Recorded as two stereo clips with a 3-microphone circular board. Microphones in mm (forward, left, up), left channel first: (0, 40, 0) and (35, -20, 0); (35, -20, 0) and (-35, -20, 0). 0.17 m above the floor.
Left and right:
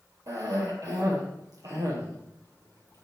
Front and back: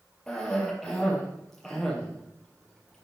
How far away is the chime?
No chime in this recording.